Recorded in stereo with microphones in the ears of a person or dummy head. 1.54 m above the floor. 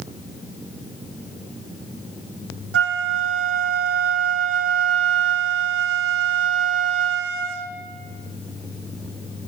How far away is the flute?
About 0.8 m.